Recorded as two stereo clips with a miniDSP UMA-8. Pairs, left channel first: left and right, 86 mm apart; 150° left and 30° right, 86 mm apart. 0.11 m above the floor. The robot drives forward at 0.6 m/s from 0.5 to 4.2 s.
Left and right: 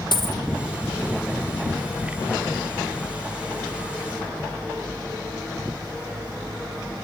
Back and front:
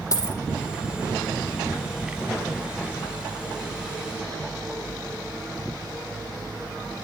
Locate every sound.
0.1 s a dropped coin: 105° left, 2 m